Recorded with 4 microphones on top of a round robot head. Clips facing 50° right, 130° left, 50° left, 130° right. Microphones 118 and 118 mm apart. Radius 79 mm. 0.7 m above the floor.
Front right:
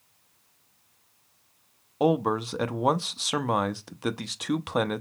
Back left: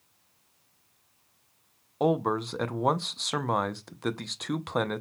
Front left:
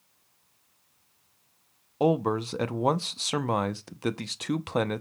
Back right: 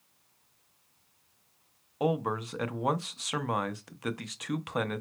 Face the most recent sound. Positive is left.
turn(degrees=30)